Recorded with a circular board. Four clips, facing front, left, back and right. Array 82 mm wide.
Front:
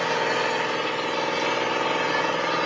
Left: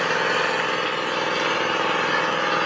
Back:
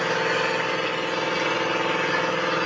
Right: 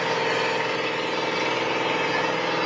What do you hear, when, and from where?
0.0 s an engine running: 105° left, 3 m